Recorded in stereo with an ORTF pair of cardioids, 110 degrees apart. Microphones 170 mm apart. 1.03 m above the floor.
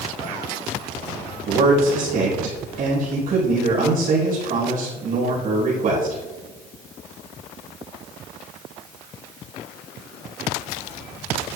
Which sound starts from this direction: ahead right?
A man speaking, at 1.5 s.